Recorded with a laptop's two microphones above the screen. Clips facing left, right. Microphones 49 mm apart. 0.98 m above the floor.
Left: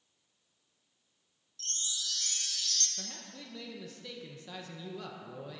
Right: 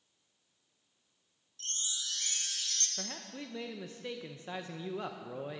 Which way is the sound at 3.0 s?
30° right (ahead or behind).